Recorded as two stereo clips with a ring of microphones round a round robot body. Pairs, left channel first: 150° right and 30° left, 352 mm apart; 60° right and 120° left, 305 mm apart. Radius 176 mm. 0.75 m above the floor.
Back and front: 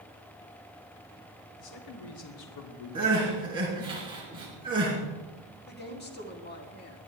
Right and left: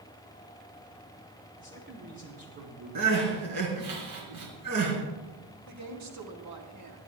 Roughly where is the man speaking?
Behind.